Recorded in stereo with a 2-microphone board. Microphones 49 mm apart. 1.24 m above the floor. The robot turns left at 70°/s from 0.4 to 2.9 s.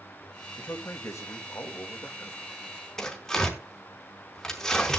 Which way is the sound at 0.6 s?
145° left.